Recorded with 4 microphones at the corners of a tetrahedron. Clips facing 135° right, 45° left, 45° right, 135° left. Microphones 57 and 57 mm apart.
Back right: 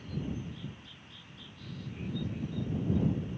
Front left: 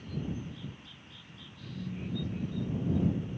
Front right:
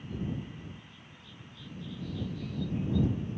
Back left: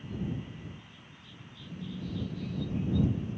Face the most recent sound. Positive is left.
turn(degrees=100)